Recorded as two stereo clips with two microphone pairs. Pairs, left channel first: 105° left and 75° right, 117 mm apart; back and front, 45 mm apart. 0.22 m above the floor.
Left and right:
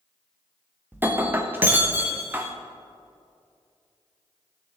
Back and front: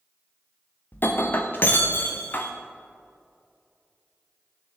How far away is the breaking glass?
About 1.5 m.